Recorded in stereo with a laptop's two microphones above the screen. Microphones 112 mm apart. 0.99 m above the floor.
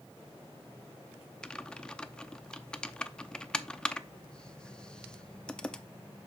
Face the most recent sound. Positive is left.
turn(degrees=10)  # may be behind; listen again after turning